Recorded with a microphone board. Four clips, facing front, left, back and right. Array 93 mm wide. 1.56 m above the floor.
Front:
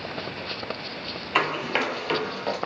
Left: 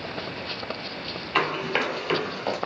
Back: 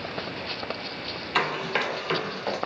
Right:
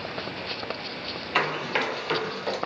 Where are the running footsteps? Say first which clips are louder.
Left 1 dB, front 2 dB; 10° left, 1.7 m; by 2.6 s 75° left, 1.7 m.